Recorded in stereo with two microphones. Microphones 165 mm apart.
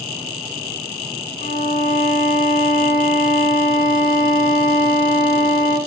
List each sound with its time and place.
1.4 s a violin: 65° left (ahead or behind), 1.3 m